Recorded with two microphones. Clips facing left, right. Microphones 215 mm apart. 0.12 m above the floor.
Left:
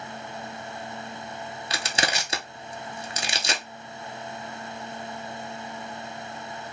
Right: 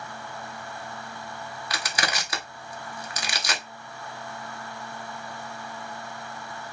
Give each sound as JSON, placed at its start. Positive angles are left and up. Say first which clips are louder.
{"t": 1.7, "sound": "crushing", "louder": "left 2 dB", "side_deg": 25, "distance_m": 0.5}